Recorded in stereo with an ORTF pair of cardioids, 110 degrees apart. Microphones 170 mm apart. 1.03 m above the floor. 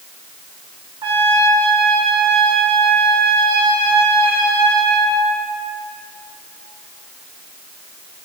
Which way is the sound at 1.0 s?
30° right.